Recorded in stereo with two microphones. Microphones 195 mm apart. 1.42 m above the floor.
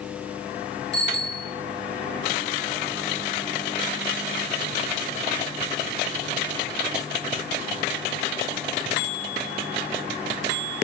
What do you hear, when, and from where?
0.9 s a bicycle bell: 60° left (ahead or behind), 2 m